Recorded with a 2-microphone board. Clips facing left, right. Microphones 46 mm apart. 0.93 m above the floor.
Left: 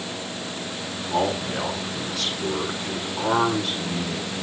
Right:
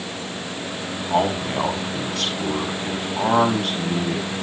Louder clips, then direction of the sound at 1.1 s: Right 3 dB; 65° right (ahead or behind).